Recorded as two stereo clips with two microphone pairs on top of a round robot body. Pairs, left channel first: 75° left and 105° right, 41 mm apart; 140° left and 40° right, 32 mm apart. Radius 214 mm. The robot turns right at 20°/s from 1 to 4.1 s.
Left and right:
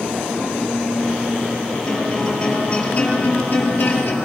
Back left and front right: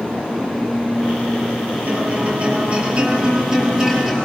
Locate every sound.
1.9 s a guitar: 5° right, 10 m; by 4.2 s 40° left, 10 m